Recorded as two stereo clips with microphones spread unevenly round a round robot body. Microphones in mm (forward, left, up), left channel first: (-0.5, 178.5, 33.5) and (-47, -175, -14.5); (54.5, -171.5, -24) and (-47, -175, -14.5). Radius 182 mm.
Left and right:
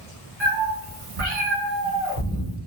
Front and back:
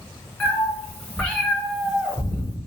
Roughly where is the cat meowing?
Right.